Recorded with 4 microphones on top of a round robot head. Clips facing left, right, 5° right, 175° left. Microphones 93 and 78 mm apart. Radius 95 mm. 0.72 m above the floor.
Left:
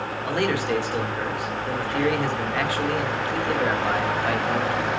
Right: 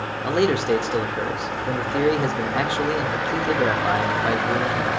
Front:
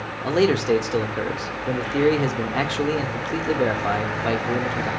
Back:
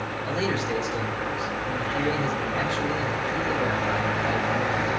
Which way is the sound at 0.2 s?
20° right.